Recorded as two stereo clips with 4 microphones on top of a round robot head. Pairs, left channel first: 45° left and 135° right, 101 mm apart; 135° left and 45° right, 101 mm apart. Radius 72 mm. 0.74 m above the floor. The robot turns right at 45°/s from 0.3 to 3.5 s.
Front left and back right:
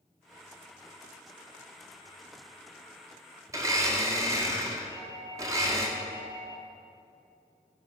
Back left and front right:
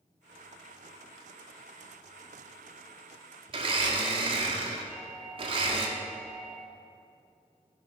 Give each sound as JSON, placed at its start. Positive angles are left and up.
{"t": 3.5, "sound": "a blender", "azimuth_deg": -75, "distance_m": 1.5}
{"t": 4.9, "sound": "a doorbell", "azimuth_deg": -140, "distance_m": 2.0}